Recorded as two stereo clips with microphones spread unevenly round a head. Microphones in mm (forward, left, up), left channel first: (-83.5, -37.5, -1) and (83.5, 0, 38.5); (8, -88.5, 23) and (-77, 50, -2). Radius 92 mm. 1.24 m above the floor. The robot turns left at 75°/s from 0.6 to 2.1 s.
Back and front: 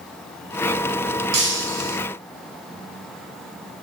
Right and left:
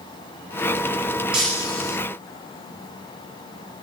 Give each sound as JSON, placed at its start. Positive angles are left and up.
{"t": 1.3, "sound": "breaking glass", "azimuth_deg": 35, "distance_m": 4.0}